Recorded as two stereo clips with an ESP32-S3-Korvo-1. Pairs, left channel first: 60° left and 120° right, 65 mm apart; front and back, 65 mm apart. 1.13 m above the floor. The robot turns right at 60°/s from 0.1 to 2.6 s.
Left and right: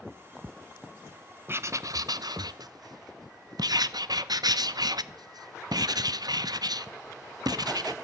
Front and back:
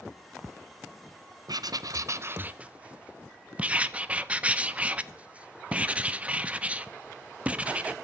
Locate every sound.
1.5 s writing: 175° right, 0.5 m; by 7.9 s 110° right, 0.5 m